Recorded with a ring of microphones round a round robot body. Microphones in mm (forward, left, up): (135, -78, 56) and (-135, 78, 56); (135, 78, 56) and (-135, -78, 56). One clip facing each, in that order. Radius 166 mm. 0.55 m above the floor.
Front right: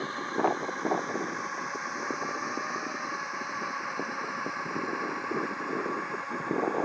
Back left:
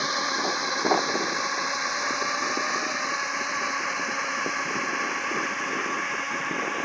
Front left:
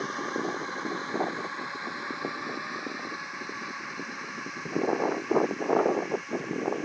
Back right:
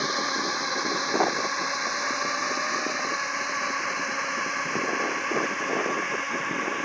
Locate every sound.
0.0 s a drone: straight behind; by 6.8 s 170° right